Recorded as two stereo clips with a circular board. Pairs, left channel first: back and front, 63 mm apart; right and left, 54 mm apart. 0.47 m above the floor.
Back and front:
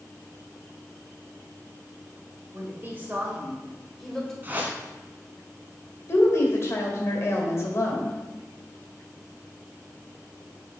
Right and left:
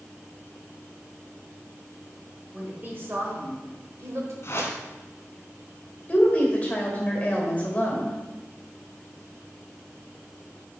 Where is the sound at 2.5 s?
40° left, 1.5 m; by 4.3 s 100° left, 1.6 m.